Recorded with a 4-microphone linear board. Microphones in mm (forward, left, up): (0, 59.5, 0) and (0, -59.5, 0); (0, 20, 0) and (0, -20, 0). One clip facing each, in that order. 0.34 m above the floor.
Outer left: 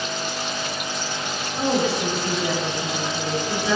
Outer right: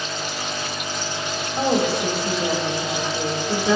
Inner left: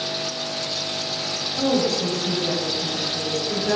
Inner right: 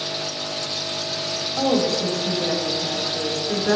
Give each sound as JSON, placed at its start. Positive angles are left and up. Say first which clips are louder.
{"t": 1.6, "sound": "a woman speaking", "louder": "outer right 1 dB, inner right 1 dB", "side_deg": -40, "distance_m": 2.5}